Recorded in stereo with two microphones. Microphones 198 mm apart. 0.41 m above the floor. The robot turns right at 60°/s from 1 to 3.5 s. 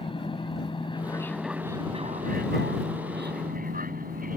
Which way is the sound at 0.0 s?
25° left (ahead or behind).